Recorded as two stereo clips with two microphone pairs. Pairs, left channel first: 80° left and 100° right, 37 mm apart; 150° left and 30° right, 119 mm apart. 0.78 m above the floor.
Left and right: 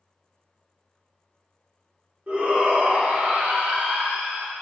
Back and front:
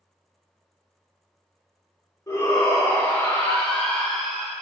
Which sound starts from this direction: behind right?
A shout, at 2.3 s.